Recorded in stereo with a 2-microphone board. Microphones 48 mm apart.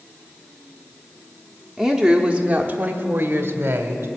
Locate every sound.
1.8 s a woman speaking: centre (ahead or behind), 1.0 m; by 4.1 s 55° right (ahead or behind), 1.8 m